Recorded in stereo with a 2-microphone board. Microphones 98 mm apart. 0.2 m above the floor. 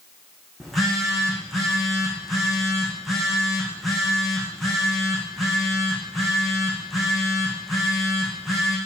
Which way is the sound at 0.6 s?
Centre (ahead or behind).